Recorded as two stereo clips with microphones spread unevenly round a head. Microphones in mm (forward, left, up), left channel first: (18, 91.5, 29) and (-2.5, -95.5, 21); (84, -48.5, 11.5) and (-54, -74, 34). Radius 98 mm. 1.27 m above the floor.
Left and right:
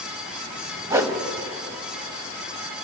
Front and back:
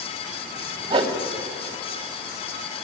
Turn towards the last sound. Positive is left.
turn(degrees=-170)